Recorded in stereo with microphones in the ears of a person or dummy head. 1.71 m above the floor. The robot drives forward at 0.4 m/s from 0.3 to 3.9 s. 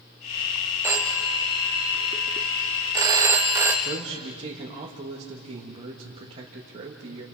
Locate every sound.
0.8 s a phone ringing: 15° right (ahead or behind), 1.0 m; by 3.7 s 10° right (ahead or behind), 1.2 m
3.8 s a man speaking: 30° right (ahead or behind), 2.5 m